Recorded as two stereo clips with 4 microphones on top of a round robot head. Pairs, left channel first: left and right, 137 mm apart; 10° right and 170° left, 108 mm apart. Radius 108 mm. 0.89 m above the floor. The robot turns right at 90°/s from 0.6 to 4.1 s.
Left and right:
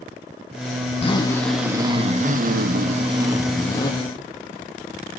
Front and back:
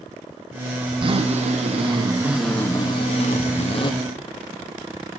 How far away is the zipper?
About 1.3 m.